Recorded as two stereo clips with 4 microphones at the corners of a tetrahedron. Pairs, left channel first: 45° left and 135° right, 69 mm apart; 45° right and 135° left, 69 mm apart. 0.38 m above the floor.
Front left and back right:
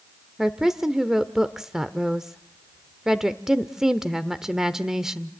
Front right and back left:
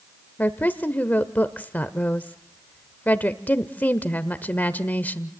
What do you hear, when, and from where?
0.4 s a woman speaking: 60° right, 0.9 m